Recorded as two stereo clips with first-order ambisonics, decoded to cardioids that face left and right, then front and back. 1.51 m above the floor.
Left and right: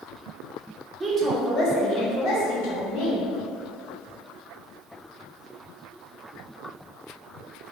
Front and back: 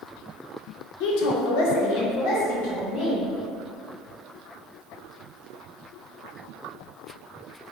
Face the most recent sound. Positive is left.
turn(degrees=55)